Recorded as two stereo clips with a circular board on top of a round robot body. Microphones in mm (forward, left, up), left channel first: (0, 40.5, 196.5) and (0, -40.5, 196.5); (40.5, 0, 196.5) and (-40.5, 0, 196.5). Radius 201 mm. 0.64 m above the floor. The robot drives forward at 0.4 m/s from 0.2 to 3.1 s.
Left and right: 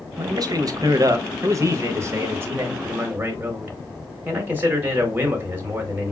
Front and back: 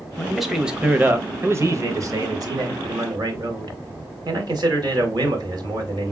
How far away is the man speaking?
About 0.8 m.